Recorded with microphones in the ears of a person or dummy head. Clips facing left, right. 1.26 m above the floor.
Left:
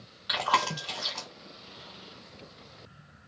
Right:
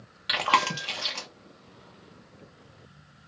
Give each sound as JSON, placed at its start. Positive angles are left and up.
{"t": 0.3, "sound": "chewing", "side_deg": -25, "distance_m": 0.8}